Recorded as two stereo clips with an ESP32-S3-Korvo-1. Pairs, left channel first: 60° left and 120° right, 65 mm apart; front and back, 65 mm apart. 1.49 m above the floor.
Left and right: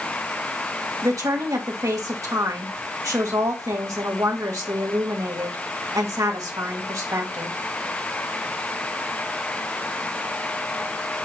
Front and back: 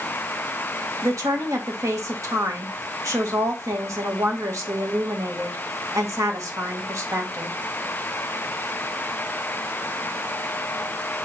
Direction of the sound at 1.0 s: 145° right.